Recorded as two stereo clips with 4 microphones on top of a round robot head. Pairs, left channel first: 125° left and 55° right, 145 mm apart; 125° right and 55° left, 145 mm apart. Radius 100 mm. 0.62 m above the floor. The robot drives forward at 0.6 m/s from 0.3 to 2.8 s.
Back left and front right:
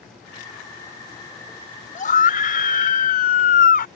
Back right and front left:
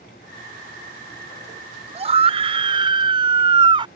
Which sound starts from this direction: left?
A scream, at 1.9 s.